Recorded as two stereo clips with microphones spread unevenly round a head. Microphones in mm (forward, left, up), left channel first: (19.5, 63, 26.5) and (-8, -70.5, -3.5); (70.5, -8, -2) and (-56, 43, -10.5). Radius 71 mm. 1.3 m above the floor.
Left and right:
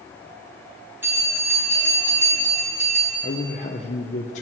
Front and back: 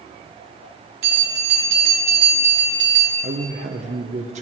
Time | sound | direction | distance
1.0 | a bell | 175° right | 3.5 m
3.2 | a man speaking | 120° left | 0.8 m